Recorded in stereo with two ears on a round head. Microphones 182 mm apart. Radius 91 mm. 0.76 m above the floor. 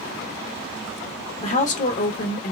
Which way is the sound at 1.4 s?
35° left (ahead or behind).